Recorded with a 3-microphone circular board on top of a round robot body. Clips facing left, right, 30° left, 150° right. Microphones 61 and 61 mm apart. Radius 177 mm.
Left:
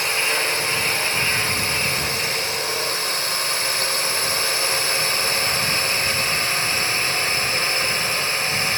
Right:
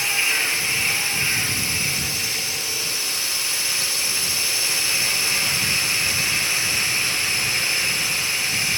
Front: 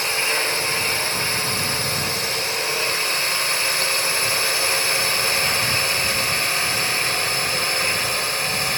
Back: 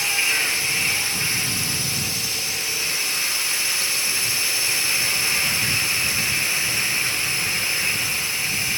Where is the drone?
60° left; by 8.8 s 50° left.